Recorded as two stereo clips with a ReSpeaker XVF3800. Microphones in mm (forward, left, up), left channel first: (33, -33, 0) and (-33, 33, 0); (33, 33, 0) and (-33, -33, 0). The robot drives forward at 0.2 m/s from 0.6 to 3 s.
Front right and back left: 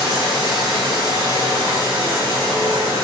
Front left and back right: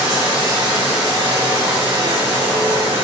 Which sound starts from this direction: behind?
Running water, at 0.0 s.